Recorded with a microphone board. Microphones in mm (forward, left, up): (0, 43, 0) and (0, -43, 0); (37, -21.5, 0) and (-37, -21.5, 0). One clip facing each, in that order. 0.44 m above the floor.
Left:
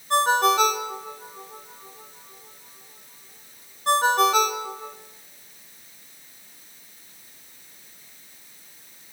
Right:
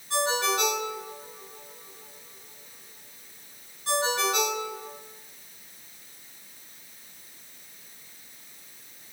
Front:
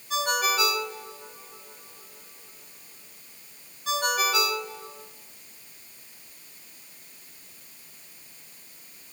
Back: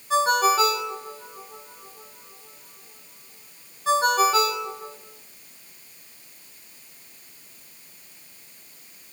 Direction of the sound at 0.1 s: 125° left.